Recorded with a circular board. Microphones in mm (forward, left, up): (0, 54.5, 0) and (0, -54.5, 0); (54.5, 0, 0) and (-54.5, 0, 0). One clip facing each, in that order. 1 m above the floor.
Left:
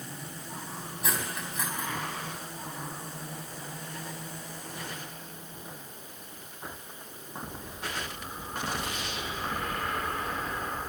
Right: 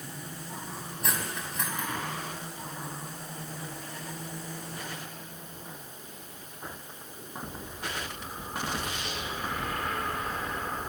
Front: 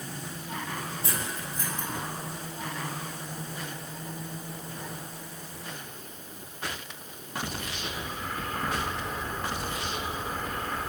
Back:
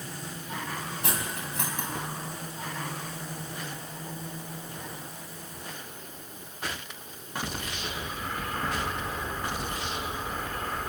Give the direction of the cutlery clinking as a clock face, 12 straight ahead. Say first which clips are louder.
Even, back 1 dB; 6 o'clock.